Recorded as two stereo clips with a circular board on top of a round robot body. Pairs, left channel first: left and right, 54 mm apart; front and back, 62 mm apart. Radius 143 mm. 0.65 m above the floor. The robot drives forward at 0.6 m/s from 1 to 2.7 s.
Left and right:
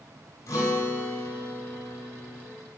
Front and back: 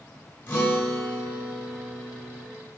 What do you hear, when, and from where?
0.5 s a guitar: 55° left, 3 m; by 2.5 s 75° left, 2.5 m